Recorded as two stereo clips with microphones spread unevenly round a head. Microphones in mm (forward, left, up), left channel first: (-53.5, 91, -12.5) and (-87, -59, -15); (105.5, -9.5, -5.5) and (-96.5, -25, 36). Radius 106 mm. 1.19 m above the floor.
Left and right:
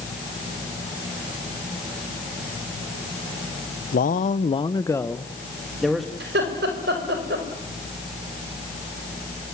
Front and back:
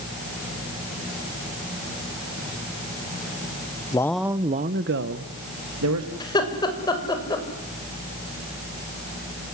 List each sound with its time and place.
3.9 s a man speaking: 60° left, 0.9 m; by 6.1 s 170° left, 2.5 m
6.2 s laughter: 65° right, 5.5 m